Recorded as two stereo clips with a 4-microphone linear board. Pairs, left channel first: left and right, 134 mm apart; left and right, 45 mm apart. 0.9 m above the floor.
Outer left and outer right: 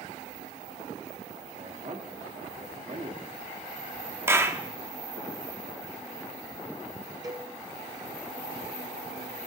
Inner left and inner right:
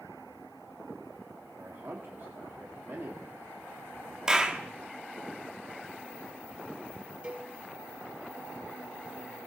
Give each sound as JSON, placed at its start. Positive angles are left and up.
{"t": 1.6, "sound": "a man speaking", "side_deg": -65, "distance_m": 2.0}
{"t": 4.3, "sound": "a clap", "side_deg": -20, "distance_m": 1.1}
{"t": 7.2, "sound": "a cowbell", "side_deg": -30, "distance_m": 2.5}